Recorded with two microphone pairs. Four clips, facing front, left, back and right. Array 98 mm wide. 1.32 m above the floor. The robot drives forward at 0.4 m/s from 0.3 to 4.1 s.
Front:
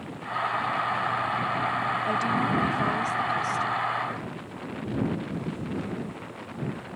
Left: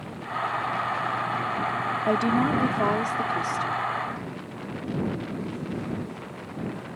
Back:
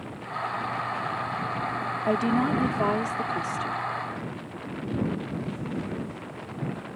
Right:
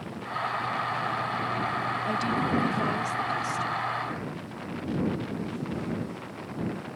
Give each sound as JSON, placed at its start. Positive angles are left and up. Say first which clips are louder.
{"t": 2.1, "sound": "a woman speaking", "louder": "left 6 dB, back 5 dB", "azimuth_deg": 125}